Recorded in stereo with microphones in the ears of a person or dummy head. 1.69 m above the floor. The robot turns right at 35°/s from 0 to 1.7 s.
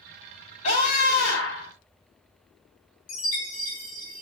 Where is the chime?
35° left (ahead or behind), 1.8 m.